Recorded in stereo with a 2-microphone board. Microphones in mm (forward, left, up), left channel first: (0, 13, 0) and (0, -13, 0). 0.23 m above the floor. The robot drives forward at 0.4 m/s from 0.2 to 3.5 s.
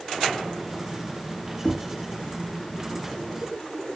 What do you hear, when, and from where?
1.6 s knocking: centre (ahead or behind), 1.6 m